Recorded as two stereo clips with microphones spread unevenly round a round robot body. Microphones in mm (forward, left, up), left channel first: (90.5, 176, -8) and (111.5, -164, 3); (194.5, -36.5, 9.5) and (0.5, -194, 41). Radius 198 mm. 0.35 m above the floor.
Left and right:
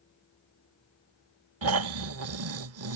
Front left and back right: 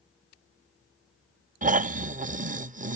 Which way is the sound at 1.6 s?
85° right.